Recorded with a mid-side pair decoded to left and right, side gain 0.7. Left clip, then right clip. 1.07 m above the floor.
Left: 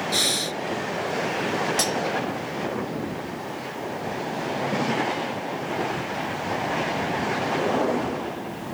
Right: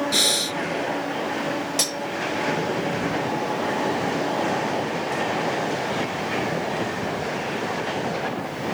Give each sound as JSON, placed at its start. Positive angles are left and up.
{"t": 0.1, "sound": "breathing", "azimuth_deg": -15}
{"t": 1.8, "sound": "cutlery clinking", "azimuth_deg": -15}